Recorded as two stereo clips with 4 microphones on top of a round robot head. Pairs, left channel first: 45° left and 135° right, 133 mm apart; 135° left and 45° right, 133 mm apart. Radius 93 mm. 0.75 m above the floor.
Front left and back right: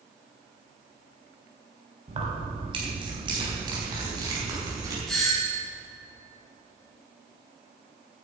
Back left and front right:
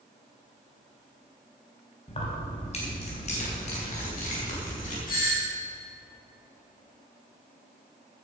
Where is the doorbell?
135° left, 5.5 m.